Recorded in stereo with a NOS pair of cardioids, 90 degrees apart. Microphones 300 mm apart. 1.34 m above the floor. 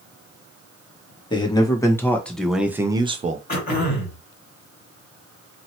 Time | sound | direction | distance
1.3 | a man speaking | 15° left | 1.6 m
3.5 | throat clearing | 30° left | 2 m